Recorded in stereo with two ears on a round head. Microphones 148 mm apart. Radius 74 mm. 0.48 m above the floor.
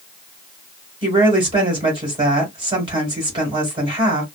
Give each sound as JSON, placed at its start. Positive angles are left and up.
{"t": 1.0, "sound": "a woman speaking", "side_deg": -30, "distance_m": 2.0}